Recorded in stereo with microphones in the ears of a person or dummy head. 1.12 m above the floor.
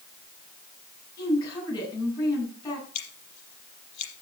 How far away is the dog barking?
I don't hear a dog barking.